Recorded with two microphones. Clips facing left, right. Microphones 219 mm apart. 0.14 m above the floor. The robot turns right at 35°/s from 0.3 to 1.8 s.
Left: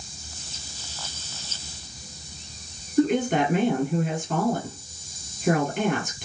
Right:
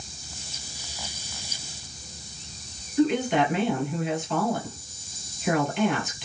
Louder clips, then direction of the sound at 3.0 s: Left 1 dB; 45° left (ahead or behind).